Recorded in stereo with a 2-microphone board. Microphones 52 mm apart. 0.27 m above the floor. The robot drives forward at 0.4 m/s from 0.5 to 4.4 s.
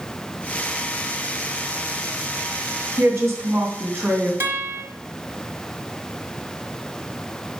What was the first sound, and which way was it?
A woman speaking, 55° right (ahead or behind).